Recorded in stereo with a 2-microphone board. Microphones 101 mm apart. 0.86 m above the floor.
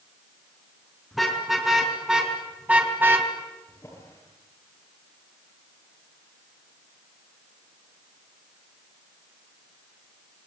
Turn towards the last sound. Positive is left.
turn(degrees=30)  # may be behind; listen again after turning